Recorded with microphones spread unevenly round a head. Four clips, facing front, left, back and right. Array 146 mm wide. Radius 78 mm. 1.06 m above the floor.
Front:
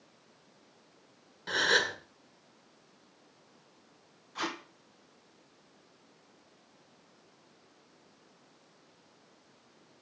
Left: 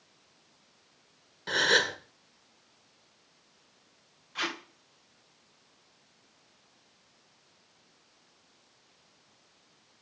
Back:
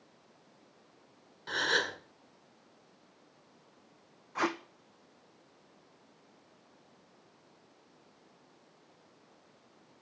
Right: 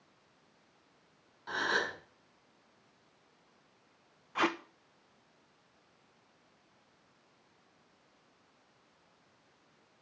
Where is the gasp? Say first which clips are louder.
Left 6 dB, front 3 dB; 70° left, 1.9 m.